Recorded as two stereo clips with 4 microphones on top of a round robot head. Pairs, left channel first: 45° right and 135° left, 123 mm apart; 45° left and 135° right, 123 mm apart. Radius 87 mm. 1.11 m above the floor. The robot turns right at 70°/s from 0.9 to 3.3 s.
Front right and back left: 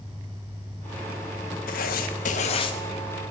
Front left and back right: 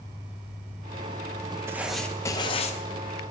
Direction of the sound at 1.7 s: 65° right.